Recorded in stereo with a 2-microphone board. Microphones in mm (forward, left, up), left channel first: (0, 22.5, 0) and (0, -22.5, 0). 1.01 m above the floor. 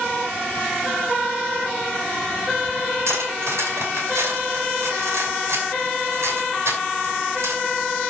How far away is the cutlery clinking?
About 5.5 m.